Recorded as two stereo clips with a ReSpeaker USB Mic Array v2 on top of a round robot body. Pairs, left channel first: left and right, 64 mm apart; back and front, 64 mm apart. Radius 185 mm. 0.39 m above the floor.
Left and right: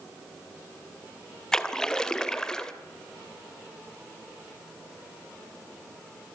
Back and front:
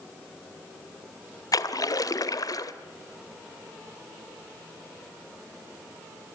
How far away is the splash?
About 2.5 m.